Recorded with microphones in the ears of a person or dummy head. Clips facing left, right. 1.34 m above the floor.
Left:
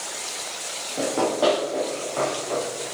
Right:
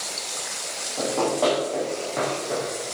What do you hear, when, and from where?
1.0 s running footsteps: 20° left (ahead or behind), 3.5 m; by 2.6 s 20° right (ahead or behind), 4 m